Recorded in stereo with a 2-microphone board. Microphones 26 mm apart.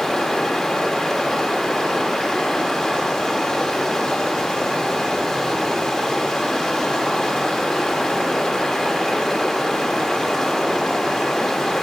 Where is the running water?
25° left (ahead or behind), 1.8 m.